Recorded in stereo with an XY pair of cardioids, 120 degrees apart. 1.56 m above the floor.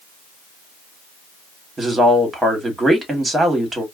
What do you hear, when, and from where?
1.8 s a woman speaking: 20° right, 1.8 m